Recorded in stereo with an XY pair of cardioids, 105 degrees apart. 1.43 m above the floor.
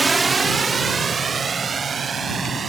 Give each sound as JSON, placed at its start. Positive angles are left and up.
{"t": 0.0, "sound": "a drone", "azimuth_deg": -25}